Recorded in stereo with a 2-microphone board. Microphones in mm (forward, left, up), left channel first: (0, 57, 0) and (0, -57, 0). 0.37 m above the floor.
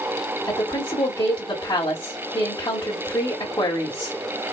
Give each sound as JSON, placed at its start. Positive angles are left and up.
{"t": 0.5, "sound": "a woman speaking", "side_deg": 45, "distance_m": 1.7}